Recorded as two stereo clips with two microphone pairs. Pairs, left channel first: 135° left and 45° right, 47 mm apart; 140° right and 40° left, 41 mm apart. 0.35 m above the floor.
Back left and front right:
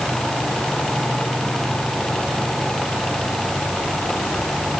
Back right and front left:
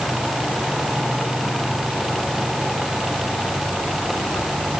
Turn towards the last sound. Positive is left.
No sound to turn to.